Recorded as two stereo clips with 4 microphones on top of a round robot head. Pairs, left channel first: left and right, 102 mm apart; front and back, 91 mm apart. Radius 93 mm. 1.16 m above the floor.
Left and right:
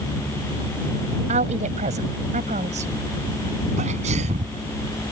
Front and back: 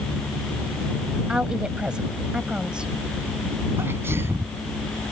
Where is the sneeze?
105° right.